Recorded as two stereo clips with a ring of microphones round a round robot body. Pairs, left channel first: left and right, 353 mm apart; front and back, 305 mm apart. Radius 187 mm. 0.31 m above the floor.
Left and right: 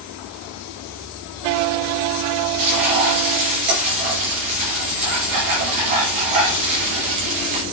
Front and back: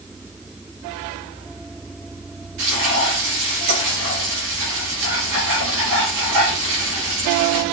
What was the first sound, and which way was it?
Frying, 125° right.